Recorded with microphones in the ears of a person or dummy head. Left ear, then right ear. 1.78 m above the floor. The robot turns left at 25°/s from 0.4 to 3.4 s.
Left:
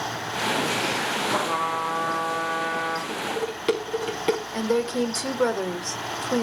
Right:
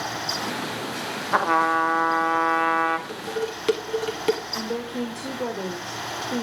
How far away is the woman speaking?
About 1.9 m.